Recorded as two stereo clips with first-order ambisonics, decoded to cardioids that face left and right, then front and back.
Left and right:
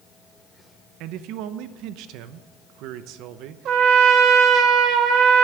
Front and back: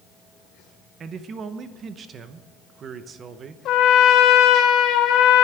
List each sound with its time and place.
1.0 s a man speaking: 120° right, 0.8 m
3.6 s a trumpet: 40° right, 1.2 m